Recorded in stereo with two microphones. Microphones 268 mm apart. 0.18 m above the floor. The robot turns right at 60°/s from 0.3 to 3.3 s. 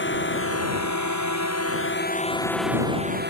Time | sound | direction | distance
0.0 | a drone | 45° left (ahead or behind) | ?